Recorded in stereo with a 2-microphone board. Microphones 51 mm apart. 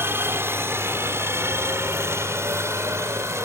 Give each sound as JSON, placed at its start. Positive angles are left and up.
{"t": 0.0, "sound": "a helicopter", "side_deg": -50}